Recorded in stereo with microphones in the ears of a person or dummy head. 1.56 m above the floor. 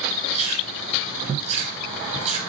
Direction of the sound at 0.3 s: 40° right (ahead or behind).